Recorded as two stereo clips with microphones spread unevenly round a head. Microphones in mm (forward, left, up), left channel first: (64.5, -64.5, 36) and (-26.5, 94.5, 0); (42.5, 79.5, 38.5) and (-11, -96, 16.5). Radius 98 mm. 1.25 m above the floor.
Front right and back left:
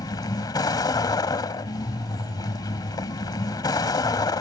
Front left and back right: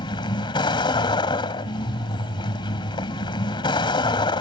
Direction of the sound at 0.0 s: 10° left.